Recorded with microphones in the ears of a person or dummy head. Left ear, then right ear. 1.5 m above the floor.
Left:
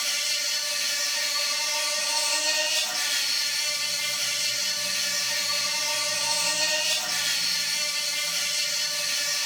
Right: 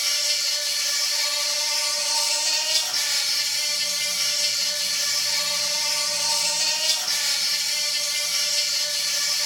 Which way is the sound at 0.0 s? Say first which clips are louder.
Right 3 dB; 65° right (ahead or behind).